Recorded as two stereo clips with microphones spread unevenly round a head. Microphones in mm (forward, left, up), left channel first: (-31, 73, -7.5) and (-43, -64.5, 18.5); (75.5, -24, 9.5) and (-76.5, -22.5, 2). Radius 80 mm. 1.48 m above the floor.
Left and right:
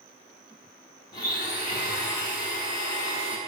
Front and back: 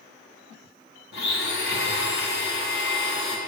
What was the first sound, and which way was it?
A blender, 20° left.